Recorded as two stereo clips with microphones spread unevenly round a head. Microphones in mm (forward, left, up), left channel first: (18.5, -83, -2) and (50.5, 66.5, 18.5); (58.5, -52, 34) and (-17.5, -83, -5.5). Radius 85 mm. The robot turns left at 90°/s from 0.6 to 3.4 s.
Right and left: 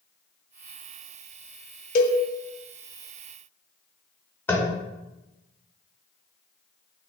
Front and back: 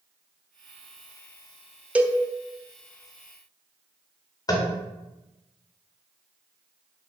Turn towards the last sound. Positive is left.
turn(degrees=-30)